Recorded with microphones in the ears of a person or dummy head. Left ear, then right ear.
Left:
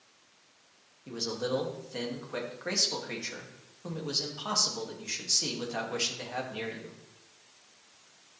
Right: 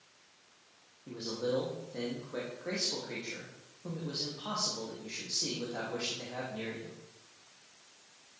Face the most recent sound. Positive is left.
turn(degrees=70)  # may be behind; listen again after turning